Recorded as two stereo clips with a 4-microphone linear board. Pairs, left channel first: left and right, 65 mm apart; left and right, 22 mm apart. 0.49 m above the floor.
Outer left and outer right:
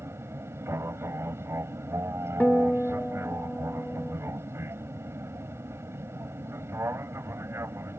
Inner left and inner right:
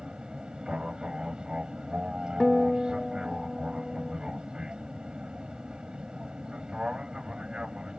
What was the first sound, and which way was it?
An aircraft, 40° right (ahead or behind).